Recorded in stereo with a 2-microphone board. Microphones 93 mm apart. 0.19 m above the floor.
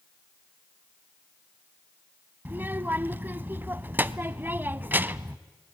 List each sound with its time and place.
2.5 s a child speaking: 20° right (ahead or behind), 0.6 m